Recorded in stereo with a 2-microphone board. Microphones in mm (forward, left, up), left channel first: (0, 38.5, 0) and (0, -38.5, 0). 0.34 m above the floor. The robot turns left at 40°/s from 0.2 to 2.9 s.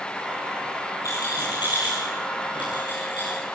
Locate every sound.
1.0 s a rattle: 45° left (ahead or behind), 7.5 m; by 3.4 s 60° left (ahead or behind), 7.5 m